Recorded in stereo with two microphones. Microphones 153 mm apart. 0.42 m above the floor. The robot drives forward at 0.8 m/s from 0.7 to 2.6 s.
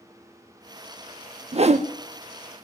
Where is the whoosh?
40° right (ahead or behind), 0.6 m; by 1.9 s 50° right (ahead or behind), 0.5 m.